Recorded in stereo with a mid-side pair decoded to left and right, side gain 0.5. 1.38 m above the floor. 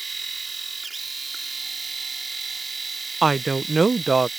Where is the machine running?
25° right.